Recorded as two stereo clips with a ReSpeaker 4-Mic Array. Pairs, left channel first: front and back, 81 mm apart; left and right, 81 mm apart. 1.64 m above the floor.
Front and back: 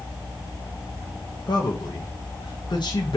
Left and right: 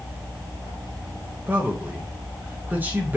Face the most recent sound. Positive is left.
turn(degrees=-25)